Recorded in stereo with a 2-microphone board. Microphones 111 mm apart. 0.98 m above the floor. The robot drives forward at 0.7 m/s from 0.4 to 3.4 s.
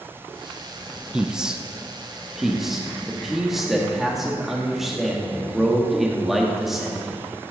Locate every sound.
1.1 s a man speaking: 10° right (ahead or behind), 0.6 m; by 7.2 s centre (ahead or behind), 1.9 m